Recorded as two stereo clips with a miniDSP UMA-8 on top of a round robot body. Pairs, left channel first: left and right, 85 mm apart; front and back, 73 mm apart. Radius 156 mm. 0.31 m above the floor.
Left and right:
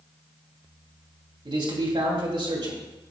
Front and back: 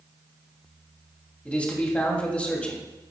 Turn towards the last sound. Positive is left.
turn(degrees=-70)